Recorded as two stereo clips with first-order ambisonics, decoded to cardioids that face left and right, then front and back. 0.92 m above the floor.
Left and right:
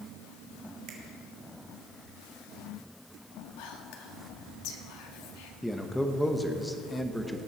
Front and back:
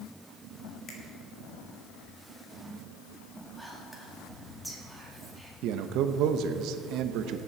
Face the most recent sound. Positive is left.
turn(degrees=180)